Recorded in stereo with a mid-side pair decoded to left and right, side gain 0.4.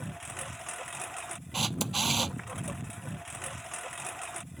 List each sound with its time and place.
0.0 s a lawn mower: straight ahead
1.5 s a camera shutter: 25° right